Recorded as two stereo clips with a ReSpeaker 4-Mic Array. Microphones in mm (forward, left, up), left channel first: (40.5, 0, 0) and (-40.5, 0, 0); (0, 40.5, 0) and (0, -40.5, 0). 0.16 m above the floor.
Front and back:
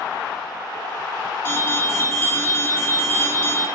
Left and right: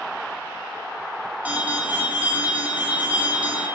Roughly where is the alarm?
Ahead right.